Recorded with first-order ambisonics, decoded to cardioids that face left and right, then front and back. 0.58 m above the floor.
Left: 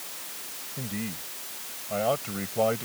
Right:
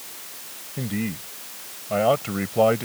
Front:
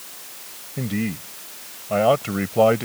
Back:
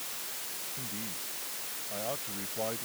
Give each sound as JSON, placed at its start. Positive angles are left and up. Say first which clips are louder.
{"t": 0.8, "sound": "a man speaking", "louder": "right 7 dB, front 11 dB", "azimuth_deg": -25}